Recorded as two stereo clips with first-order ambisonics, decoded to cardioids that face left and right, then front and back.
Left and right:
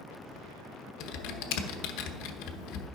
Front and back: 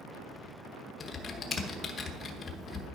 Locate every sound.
1.0 s typing on a keyboard: 65° left, 1.0 m